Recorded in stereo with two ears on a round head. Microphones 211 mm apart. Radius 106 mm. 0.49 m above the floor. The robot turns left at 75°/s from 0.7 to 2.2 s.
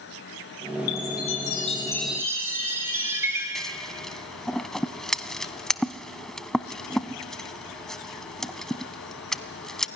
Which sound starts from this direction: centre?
Scissors, at 3.5 s.